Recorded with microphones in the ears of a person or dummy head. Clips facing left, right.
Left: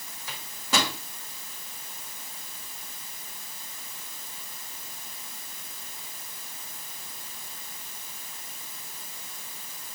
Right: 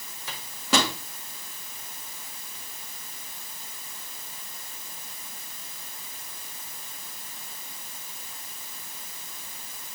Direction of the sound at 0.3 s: 60° right (ahead or behind).